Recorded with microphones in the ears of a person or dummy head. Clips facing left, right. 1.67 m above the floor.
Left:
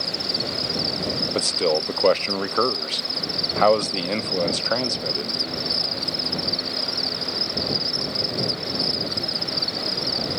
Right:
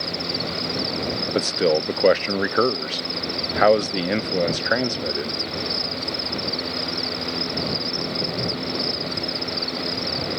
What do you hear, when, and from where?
0.0 s an insect: 10° left (ahead or behind)
1.4 s a man speaking: 20° right (ahead or behind)